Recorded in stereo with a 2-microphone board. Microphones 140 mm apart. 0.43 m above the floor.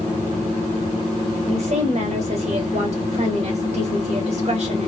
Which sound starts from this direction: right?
A woman speaking, at 1.5 s.